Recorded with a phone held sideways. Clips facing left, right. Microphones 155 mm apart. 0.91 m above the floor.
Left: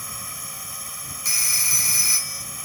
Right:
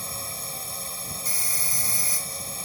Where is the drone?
30° right (ahead or behind).